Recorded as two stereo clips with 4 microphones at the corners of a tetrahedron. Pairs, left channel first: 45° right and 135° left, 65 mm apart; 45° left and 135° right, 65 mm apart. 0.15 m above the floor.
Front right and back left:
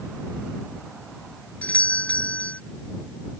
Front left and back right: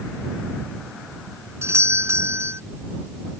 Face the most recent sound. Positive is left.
turn(degrees=-105)